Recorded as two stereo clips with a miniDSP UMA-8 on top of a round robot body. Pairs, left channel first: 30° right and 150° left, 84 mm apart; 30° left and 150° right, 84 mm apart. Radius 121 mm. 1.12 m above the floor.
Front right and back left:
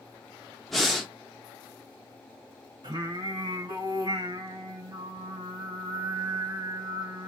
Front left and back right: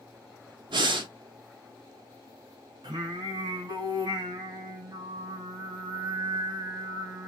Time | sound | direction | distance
0.7 | breathing | 120° right | 0.7 m
2.8 | singing | straight behind | 1.3 m